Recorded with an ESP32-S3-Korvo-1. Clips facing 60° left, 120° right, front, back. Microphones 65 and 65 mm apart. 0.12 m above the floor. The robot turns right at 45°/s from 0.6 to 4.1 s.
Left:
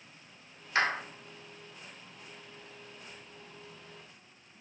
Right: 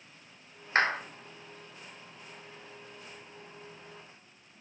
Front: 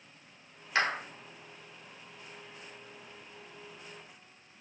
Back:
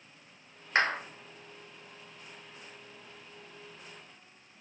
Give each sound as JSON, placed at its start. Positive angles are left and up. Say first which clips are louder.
{"t": 0.8, "sound": "a clap", "louder": "right 2 dB, back 2 dB", "azimuth_deg": -145, "distance_m": 1.4}